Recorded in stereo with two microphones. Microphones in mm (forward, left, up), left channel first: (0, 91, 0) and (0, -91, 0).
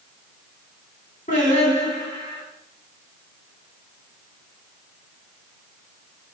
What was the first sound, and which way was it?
Singing, 45° left (ahead or behind).